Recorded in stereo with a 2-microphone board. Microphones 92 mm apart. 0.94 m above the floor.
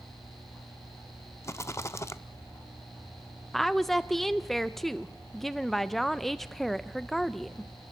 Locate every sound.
1.4 s a rattle: 30° left (ahead or behind), 0.5 m
3.5 s a woman speaking: centre (ahead or behind), 0.5 m